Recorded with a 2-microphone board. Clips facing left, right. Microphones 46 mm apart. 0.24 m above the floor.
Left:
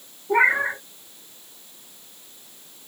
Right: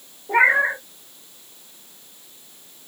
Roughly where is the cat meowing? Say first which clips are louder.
Right 2 dB; right.